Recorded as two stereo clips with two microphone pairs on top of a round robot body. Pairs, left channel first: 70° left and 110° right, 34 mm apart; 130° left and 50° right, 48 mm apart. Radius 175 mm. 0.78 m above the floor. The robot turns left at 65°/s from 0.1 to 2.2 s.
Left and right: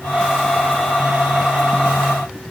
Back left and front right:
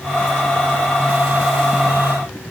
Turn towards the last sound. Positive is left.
No sound to turn to.